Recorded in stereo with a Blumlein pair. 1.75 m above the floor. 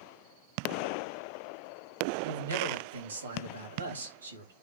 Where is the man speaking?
70° right, 3.5 m.